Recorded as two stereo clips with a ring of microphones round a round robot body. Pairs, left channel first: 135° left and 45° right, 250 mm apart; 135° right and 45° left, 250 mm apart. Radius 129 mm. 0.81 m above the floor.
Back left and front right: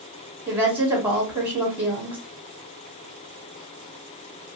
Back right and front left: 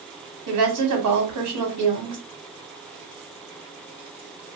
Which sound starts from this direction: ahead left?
A woman speaking, at 0.5 s.